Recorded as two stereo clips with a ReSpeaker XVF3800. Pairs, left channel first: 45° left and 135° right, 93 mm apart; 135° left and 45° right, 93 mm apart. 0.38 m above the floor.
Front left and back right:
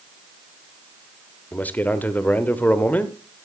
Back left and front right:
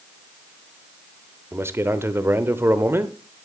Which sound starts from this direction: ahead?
A man speaking, at 1.5 s.